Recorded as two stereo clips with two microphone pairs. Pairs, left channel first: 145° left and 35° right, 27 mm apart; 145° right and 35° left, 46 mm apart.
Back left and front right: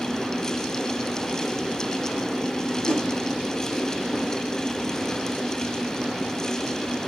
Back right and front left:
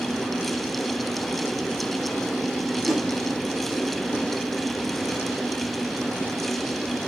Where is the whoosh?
115° left, 2.5 m.